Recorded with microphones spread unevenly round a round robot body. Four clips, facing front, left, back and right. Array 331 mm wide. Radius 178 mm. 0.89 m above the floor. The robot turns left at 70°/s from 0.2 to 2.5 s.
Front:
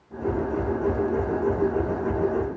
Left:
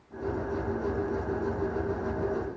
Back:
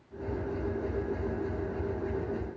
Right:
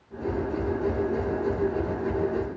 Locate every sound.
Only background noise.